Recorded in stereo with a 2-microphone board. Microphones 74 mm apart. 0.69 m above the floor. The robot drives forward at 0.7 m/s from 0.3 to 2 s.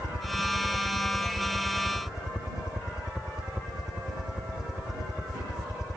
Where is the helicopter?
10° right (ahead or behind).